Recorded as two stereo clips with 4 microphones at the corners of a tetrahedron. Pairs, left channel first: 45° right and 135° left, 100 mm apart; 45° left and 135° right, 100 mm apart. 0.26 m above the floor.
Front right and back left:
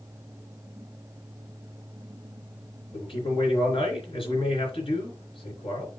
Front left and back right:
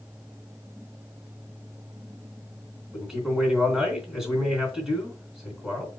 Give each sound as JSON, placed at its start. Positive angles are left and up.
{"t": 2.9, "sound": "a man speaking", "azimuth_deg": -50, "distance_m": 3.5}